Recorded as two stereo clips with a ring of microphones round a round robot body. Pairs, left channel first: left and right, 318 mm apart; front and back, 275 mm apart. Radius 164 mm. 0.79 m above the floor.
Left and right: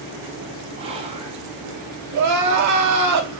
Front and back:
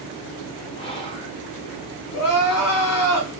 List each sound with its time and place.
0.8 s whispering: 45° right, 0.8 m
2.1 s crying: 50° right, 0.7 m